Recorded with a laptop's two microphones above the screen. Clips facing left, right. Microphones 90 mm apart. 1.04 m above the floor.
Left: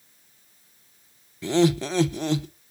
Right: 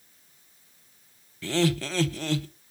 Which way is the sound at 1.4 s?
20° left (ahead or behind).